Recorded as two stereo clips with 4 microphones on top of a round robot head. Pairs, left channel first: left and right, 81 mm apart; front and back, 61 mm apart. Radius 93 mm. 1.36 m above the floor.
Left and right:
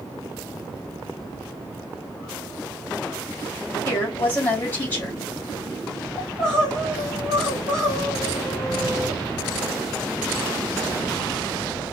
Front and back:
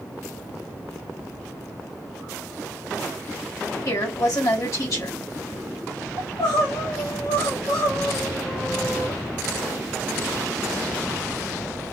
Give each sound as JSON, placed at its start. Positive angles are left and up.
{"t": 3.9, "sound": "a woman speaking", "azimuth_deg": 25, "distance_m": 2.5}
{"t": 6.2, "sound": "crying", "azimuth_deg": 10, "distance_m": 1.7}